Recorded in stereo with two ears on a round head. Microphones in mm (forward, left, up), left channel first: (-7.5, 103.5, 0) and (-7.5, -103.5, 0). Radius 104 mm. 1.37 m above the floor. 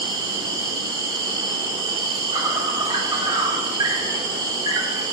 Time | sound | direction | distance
0.0 | an insect | 20° right (ahead or behind) | 1.1 m